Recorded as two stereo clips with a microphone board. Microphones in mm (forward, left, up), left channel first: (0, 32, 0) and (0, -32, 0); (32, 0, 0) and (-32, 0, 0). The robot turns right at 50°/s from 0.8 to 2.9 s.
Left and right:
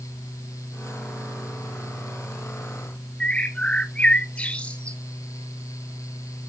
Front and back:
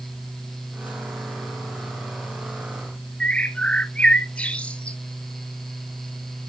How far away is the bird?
About 0.6 m.